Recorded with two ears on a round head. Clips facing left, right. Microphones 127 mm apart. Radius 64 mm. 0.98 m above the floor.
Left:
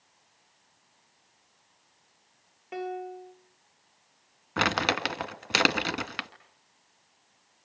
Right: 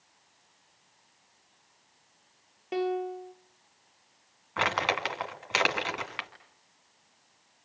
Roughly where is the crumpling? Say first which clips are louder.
Left 1 dB; left.